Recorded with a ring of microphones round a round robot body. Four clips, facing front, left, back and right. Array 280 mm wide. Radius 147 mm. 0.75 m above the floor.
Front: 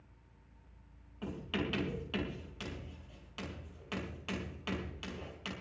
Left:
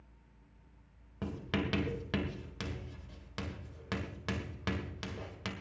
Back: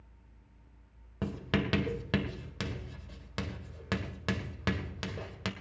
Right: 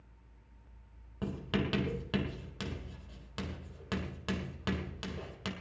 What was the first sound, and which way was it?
Writing, 175° left.